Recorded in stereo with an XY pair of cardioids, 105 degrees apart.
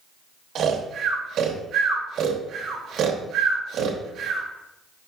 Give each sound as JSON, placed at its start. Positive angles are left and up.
{"t": 0.6, "sound": "snoring", "azimuth_deg": -70, "distance_m": 0.9}